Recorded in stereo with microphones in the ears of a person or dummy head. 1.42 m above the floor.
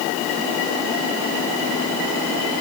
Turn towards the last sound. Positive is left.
No sound to turn to.